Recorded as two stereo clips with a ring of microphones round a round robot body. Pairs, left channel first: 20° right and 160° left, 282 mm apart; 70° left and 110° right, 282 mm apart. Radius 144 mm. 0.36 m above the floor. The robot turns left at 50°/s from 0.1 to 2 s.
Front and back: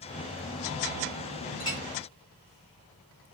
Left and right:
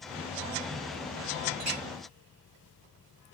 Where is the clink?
95° right, 3 m; by 1.8 s 105° right, 3 m.